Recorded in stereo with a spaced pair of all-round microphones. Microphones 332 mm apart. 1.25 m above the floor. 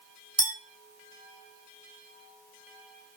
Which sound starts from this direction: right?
A clink, at 0.4 s.